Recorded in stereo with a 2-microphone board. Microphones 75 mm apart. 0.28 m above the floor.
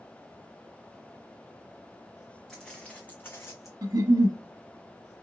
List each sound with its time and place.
2.5 s footsteps: 5° left (ahead or behind), 1.6 m; by 3.7 s 45° left (ahead or behind), 1.4 m
3.8 s a giggle: 65° right (ahead or behind), 0.9 m